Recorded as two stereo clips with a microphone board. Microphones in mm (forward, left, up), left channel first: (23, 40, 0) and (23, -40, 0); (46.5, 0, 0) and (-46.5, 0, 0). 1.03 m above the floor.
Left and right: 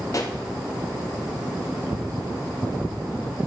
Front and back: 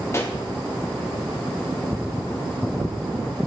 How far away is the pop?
About 0.8 m.